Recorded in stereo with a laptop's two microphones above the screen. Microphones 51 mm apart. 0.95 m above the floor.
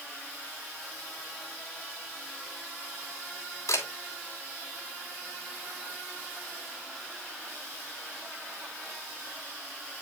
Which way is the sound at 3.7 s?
80° left.